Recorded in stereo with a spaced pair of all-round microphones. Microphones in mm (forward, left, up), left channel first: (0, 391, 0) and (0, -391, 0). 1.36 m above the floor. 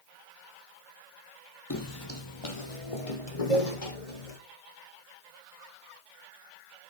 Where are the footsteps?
25° left (ahead or behind), 1.5 m; by 4.4 s 50° left (ahead or behind), 3 m.